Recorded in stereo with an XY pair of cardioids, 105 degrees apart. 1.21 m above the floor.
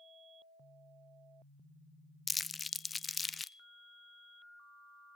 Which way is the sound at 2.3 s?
25° left.